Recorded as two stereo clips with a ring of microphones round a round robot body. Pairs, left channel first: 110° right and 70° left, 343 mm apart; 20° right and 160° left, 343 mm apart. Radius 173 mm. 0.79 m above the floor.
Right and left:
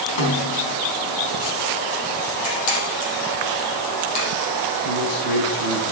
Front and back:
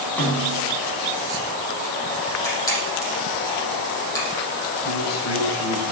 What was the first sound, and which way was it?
A snare drum, 110° right.